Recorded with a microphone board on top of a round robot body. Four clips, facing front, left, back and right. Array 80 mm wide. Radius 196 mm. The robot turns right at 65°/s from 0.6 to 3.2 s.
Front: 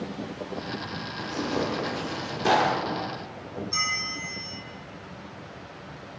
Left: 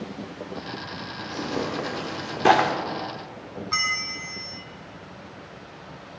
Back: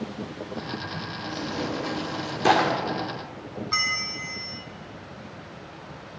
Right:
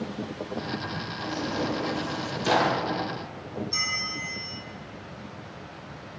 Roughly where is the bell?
Behind left.